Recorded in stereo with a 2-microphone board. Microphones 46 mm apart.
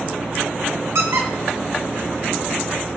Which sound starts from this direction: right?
A squeak, at 0.9 s.